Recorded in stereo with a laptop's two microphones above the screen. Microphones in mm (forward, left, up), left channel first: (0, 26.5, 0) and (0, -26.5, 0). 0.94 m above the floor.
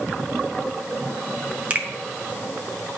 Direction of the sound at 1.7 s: 25° right (ahead or behind).